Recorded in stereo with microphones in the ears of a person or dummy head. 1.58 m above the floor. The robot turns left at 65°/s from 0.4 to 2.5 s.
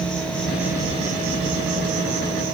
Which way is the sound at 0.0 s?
5° left.